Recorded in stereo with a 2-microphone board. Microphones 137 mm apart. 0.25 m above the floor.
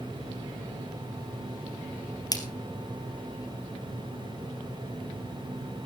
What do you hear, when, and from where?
2.3 s a splash: 30° left (ahead or behind), 2.5 m